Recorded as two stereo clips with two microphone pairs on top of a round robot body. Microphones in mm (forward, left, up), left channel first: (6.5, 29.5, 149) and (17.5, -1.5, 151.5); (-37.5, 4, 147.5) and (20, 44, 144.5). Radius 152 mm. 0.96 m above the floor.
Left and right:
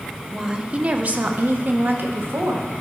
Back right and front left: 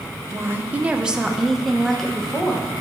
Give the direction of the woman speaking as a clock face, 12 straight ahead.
12 o'clock.